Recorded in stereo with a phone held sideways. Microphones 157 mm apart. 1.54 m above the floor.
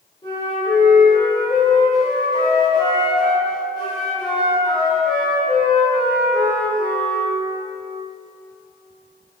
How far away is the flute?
About 0.8 m.